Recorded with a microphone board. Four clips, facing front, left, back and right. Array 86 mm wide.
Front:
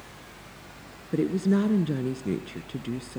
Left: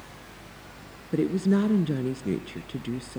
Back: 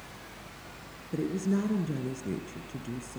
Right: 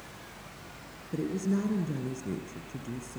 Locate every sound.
1.1 s a woman speaking: 55° left, 1.4 m